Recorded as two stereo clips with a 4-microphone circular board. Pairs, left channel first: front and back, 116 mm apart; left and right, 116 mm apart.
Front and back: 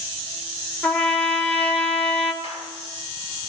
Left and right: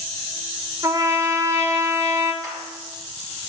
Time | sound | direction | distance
0.8 | a trumpet | 70° right | 0.7 m
2.4 | a clap | 170° left | 5 m